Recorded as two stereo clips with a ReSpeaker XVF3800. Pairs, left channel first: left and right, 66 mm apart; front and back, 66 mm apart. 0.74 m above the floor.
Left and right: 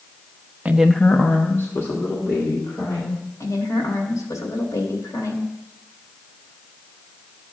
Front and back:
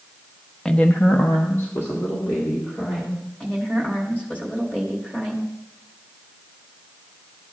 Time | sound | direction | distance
0.7 | a woman speaking | 70° right | 0.6 m
3.4 | a woman speaking | 60° left | 2.5 m